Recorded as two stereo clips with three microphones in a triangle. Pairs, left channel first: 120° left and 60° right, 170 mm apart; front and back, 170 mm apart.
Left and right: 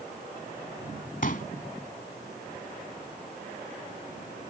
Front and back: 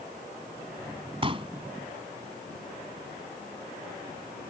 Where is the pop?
130° left.